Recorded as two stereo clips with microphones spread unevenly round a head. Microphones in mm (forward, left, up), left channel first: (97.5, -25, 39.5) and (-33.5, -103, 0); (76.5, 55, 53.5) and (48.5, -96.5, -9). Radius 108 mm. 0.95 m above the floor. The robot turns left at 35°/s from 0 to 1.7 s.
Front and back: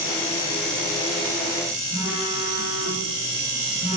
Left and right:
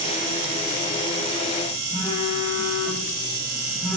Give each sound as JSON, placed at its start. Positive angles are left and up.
{"t": 1.9, "sound": "a phone buzzing", "azimuth_deg": 165, "distance_m": 8.5}